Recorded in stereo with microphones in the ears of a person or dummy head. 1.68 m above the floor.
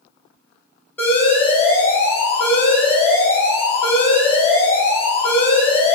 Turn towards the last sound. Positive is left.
turn(degrees=10)  # may be behind; listen again after turning